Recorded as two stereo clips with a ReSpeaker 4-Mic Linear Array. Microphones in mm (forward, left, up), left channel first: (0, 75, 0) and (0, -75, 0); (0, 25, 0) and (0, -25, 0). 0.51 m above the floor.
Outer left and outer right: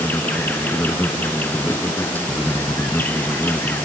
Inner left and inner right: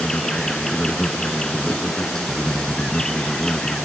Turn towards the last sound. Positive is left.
turn(degrees=15)  # may be behind; listen again after turning